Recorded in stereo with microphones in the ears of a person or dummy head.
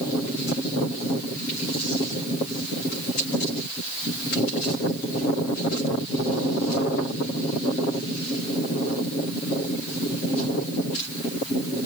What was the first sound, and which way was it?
Only background noise.